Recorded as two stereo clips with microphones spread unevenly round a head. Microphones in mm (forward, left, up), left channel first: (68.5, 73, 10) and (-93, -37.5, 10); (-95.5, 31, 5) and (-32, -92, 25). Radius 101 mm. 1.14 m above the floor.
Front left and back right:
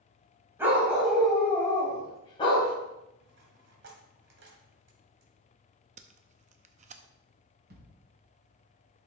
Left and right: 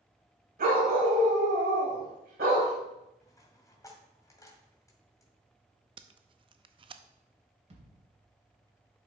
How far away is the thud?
About 3 m.